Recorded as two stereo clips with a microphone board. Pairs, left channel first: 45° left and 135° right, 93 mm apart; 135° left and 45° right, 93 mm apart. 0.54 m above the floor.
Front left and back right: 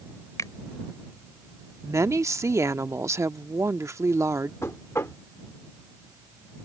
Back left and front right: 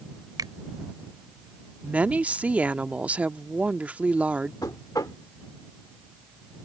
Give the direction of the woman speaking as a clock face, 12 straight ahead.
4 o'clock.